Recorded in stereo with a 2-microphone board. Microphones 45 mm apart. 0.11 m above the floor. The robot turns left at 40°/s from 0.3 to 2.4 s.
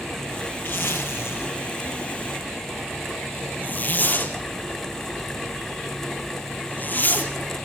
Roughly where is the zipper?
Left.